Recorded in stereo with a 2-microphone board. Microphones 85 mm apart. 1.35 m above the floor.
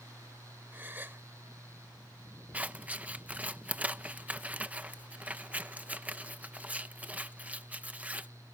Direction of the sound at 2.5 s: 15° right (ahead or behind).